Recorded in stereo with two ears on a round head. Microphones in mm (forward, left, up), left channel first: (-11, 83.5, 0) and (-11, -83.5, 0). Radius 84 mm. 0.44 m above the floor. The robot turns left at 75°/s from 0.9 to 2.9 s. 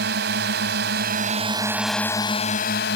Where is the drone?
105° right; by 3.0 s 105° left.